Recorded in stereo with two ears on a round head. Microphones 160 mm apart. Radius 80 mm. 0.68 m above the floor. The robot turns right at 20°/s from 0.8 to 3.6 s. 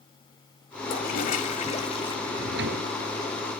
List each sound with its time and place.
0.9 s a toilet flushing: 55° left (ahead or behind); by 2.2 s 30° left (ahead or behind)
2.3 s a drawer: 65° right (ahead or behind); by 2.9 s 75° right (ahead or behind)